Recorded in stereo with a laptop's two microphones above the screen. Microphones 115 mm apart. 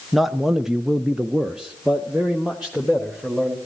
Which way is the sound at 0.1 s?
Centre (ahead or behind).